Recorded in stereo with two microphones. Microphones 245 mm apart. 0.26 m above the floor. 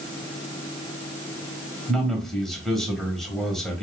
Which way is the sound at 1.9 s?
Centre (ahead or behind).